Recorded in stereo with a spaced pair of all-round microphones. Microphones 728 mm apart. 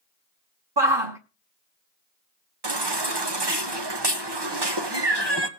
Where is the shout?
35° right (ahead or behind), 1.0 m.